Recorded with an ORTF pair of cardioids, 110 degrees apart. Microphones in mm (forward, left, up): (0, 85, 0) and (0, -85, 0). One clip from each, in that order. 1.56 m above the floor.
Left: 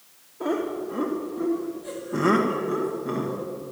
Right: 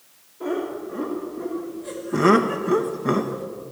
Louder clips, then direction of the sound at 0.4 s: Even; 30° left.